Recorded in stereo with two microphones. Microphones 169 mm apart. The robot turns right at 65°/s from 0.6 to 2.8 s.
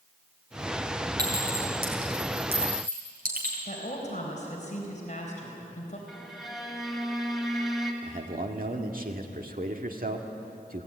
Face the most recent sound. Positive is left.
turn(degrees=-55)  # may be behind; listen again after turning